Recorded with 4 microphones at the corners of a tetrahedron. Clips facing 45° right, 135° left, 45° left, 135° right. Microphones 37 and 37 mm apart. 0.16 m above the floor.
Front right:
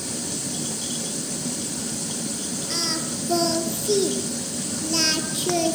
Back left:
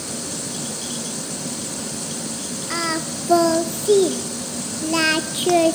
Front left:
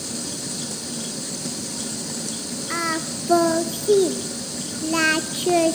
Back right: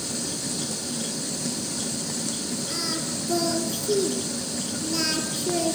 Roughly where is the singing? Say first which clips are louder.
Back left 6 dB, front left 10 dB; left.